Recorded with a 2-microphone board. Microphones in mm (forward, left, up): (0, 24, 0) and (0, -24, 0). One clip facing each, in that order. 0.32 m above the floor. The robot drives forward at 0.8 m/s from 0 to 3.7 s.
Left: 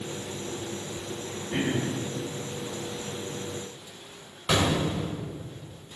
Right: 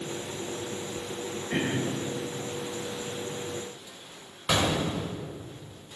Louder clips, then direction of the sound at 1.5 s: Left 1 dB; 85° right.